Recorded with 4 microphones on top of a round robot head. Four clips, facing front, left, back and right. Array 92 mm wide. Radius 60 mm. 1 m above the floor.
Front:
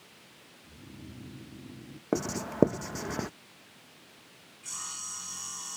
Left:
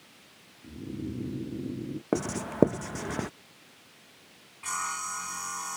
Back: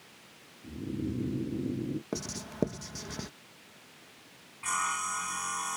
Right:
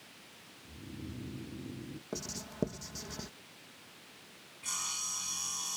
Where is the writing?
50° left.